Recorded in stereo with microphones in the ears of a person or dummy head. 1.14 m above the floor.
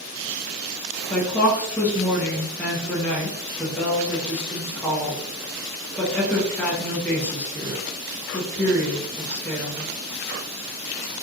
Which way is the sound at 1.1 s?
5° left (ahead or behind).